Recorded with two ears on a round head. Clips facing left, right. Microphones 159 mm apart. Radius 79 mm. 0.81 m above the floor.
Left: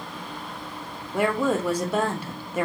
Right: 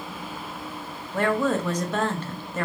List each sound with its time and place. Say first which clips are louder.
1.1 s a woman speaking: even; 10° left (ahead or behind), 0.6 m